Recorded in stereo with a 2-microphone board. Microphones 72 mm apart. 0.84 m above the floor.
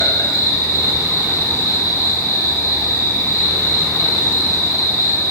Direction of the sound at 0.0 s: 45° left (ahead or behind).